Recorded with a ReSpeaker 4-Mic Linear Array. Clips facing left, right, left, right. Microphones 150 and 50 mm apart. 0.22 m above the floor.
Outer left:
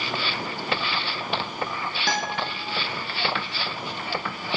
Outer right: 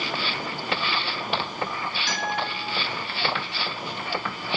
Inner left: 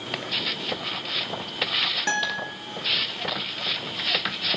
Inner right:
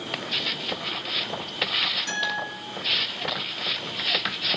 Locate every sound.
2.1 s a guitar: 60° left (ahead or behind), 0.6 m